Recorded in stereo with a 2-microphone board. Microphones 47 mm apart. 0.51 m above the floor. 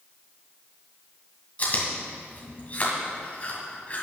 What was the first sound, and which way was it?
Chewing, 35° left (ahead or behind).